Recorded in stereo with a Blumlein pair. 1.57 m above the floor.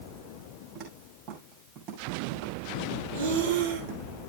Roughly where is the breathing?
Ahead right.